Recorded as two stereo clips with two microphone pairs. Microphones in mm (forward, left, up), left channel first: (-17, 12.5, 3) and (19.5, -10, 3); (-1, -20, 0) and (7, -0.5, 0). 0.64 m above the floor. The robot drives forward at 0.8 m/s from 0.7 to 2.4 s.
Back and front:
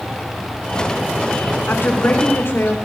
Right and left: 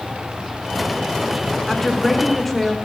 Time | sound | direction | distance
1.7 | a woman speaking | 165° left | 2 m